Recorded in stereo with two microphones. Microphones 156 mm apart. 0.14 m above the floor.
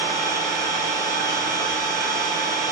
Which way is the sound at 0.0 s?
75° right (ahead or behind).